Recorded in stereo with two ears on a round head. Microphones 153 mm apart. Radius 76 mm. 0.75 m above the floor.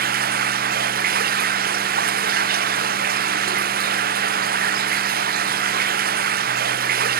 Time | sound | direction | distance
0.0 | running water | 60° right (ahead or behind) | ?